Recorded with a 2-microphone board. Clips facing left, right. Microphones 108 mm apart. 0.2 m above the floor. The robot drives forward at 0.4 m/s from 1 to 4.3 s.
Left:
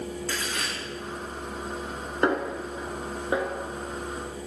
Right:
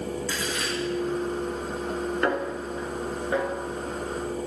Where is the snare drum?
20° left (ahead or behind), 1.2 m; by 3.5 s 15° left (ahead or behind), 1.6 m.